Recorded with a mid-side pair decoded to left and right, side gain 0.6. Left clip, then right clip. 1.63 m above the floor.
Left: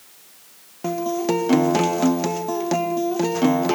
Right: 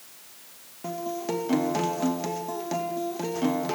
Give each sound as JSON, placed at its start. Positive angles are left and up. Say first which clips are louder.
{"t": 0.8, "sound": "a guitar", "louder": "left 8 dB", "azimuth_deg": 40, "distance_m": 1.9}